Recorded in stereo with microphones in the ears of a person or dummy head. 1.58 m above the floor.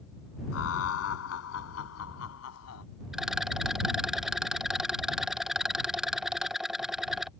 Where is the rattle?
Centre (ahead or behind).